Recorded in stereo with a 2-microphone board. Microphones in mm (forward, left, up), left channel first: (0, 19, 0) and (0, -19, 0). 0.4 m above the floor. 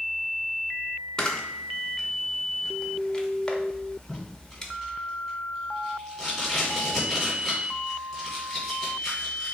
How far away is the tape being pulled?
About 2.5 m.